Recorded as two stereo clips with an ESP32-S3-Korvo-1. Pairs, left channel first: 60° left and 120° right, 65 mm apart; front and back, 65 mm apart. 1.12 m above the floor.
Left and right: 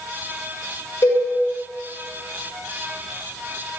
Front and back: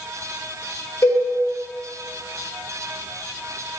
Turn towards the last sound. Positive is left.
turn(degrees=45)